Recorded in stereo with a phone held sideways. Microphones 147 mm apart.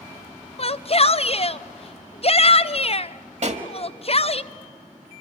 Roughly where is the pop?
Right.